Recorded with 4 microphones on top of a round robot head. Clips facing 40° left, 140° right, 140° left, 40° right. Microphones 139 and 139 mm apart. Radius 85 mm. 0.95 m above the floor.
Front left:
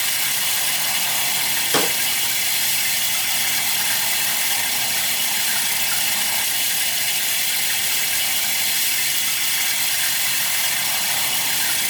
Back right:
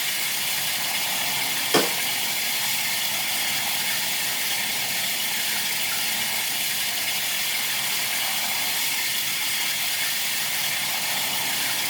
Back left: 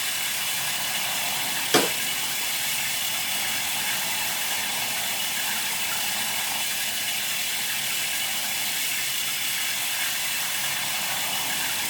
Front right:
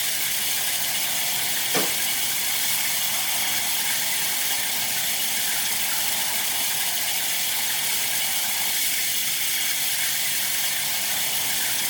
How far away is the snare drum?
About 2.5 m.